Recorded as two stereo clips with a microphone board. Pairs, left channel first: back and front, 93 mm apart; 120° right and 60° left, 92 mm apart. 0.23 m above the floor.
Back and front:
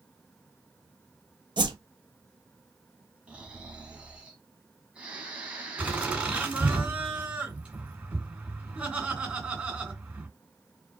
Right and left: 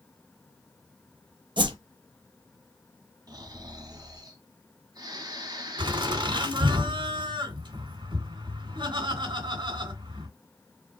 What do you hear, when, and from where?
1.6 s a whoosh: 30° left, 0.9 m
3.3 s snoring: 70° left, 1.5 m
5.8 s laughter: 75° left, 2.5 m